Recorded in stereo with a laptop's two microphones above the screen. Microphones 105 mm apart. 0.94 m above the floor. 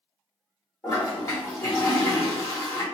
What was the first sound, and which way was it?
A toilet flushing, 25° left (ahead or behind).